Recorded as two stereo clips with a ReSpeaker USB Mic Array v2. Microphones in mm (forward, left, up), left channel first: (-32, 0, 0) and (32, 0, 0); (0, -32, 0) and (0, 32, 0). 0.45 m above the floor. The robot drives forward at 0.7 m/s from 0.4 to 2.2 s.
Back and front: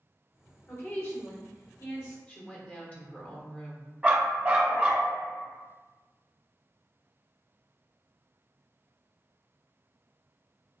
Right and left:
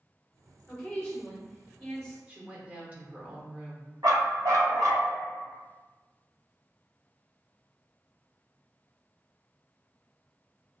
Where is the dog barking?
70° left, 0.8 m.